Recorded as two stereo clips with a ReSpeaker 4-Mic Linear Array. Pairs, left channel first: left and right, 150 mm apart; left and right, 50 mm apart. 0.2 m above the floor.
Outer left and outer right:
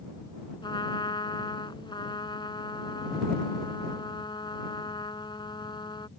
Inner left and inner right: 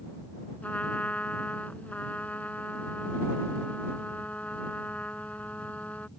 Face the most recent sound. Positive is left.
turn(degrees=30)  # may be behind; listen again after turning